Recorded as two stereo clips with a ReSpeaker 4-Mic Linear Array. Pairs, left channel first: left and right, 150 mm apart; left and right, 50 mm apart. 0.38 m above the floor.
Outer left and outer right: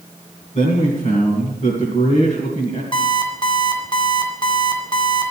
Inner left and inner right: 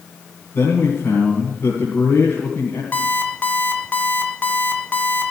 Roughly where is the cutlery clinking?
No cutlery clinking in this recording.